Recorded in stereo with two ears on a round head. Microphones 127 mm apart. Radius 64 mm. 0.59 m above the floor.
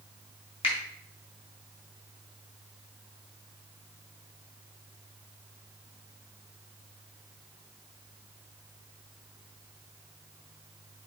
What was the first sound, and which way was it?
A finger snap, 50° left (ahead or behind).